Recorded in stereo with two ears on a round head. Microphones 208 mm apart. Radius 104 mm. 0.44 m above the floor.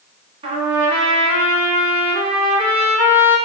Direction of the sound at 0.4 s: 25° right (ahead or behind).